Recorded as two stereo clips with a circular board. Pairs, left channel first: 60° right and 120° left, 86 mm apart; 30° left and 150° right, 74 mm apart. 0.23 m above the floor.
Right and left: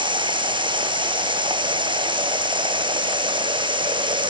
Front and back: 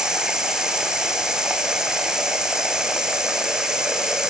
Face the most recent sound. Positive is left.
turn(degrees=130)